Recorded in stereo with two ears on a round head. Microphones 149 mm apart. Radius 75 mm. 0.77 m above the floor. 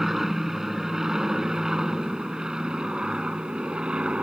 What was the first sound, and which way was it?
An aircraft, centre (ahead or behind).